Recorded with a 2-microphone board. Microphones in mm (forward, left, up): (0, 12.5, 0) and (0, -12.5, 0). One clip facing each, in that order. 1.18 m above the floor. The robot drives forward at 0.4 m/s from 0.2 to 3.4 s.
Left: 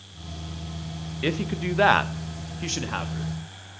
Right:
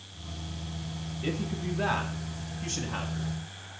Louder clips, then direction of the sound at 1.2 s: Left 6 dB; 60° left (ahead or behind).